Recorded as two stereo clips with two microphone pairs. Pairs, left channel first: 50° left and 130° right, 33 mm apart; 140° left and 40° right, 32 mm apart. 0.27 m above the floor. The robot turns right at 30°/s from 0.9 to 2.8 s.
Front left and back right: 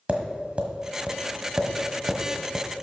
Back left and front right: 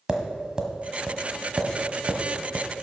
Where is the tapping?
100° right, 1.3 m; by 2.7 s 45° right, 1.3 m.